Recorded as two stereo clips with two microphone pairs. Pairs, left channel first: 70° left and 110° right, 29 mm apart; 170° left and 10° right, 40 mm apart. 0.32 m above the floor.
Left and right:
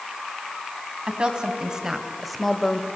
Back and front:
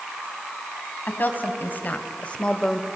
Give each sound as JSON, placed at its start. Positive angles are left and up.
{"t": 1.1, "sound": "a woman speaking", "azimuth_deg": -160, "distance_m": 2.5}